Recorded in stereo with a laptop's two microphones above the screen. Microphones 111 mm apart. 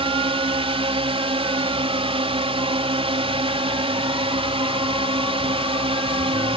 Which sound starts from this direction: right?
A drone, at 0.0 s.